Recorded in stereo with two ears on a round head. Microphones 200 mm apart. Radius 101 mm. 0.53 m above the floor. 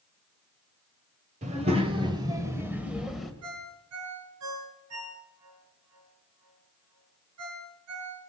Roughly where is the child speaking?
Right.